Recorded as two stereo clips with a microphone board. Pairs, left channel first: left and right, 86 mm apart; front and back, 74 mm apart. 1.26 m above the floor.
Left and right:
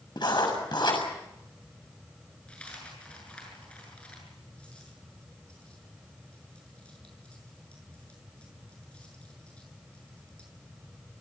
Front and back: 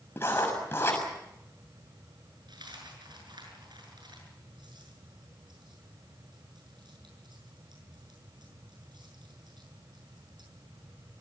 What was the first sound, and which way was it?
Writing, 55° left.